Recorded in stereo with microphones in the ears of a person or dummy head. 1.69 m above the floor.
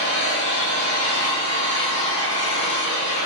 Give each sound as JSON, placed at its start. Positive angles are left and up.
{"t": 0.0, "sound": "an engine running", "side_deg": -25, "distance_m": 1.1}